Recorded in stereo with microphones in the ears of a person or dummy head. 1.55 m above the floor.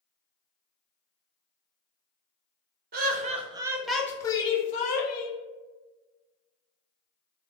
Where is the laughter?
50° right (ahead or behind), 0.7 m; by 5.4 s 50° left (ahead or behind), 1.0 m.